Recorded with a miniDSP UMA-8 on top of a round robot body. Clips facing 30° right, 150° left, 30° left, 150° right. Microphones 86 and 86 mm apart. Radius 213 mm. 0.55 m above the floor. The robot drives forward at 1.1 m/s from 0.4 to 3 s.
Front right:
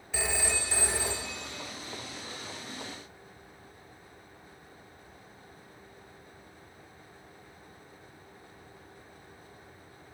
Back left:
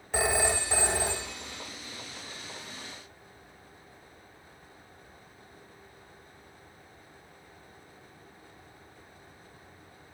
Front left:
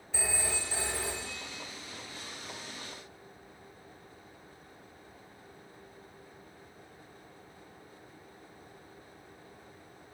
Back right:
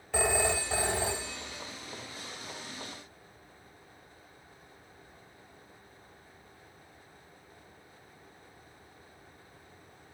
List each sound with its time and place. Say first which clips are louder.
0.1 s a phone ringing: back left 6 dB, back right 8 dB; 170° right, 0.8 m; by 1.6 s 175° right, 2 m